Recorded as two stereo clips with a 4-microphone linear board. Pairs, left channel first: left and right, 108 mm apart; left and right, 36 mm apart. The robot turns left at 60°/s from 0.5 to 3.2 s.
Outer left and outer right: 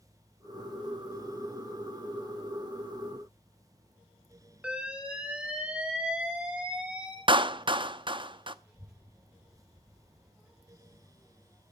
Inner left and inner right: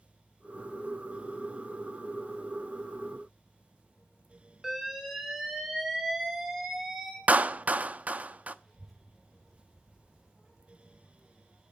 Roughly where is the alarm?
Centre.